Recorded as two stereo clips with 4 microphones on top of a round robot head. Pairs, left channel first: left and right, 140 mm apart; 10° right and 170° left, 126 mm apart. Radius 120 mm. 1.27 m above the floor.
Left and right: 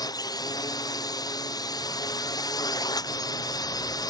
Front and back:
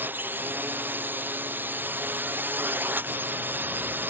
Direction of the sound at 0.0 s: 110° left.